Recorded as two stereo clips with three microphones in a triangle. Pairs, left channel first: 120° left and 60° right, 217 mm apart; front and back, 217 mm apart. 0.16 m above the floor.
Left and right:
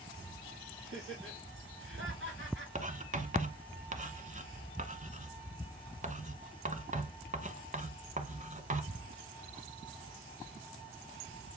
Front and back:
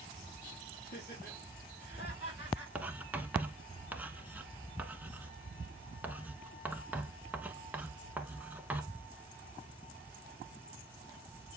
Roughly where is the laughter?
Ahead right.